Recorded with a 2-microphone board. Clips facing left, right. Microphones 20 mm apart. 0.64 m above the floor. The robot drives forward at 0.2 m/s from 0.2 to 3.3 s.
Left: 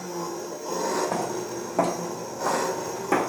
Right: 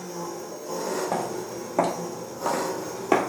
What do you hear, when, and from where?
0.0 s an engine running: 55° left (ahead or behind), 0.9 m; by 3.3 s 65° left (ahead or behind), 0.9 m
1.1 s footsteps: centre (ahead or behind), 0.9 m; by 3.3 s 40° right (ahead or behind), 0.7 m